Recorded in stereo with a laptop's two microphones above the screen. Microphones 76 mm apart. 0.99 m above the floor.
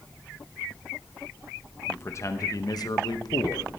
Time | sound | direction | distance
1.9 | a man speaking | 30° left (ahead or behind) | 1.0 m